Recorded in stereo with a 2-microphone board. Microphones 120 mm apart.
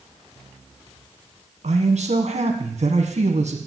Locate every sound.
1.6 s a man speaking: 80° right, 1.4 m